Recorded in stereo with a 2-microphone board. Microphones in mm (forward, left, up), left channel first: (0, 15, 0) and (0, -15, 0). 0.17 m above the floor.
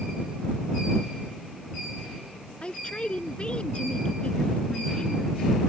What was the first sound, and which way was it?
A man speaking, 40° left (ahead or behind).